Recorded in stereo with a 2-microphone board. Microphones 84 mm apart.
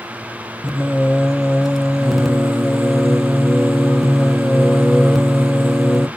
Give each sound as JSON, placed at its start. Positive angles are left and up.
{"t": 0.6, "sound": "singing", "side_deg": 0, "distance_m": 0.6}